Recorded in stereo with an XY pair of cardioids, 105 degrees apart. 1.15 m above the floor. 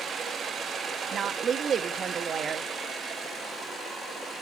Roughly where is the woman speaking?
Ahead right.